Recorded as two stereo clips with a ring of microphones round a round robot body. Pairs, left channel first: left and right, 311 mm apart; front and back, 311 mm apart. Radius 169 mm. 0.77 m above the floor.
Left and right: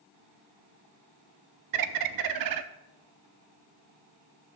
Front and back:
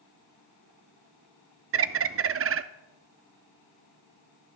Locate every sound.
1.7 s a bird: 130° right, 0.6 m